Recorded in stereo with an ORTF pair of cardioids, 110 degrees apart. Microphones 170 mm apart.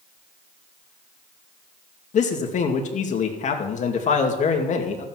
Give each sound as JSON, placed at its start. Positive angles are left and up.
{"t": 2.1, "sound": "a man speaking", "azimuth_deg": 45, "distance_m": 2.5}